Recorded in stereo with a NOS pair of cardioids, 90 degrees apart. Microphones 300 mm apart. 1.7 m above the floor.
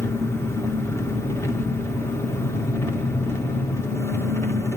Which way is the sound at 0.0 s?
10° left.